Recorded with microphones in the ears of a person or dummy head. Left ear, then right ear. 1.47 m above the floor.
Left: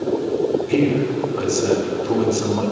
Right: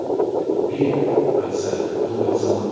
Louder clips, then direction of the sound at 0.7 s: Right 1 dB; 80° left.